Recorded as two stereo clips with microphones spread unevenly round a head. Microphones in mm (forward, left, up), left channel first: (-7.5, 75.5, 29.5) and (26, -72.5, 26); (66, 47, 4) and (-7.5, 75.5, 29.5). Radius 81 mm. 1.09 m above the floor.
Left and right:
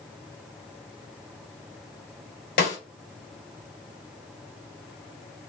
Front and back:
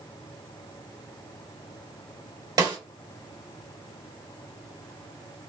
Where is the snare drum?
135° left, 1.9 m.